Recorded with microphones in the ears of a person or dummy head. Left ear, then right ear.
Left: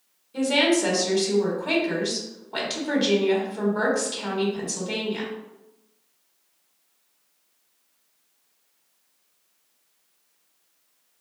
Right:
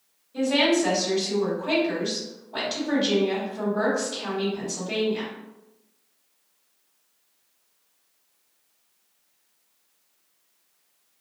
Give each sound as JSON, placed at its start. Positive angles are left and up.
{"t": 0.3, "sound": "a woman speaking", "side_deg": 75, "distance_m": 1.2}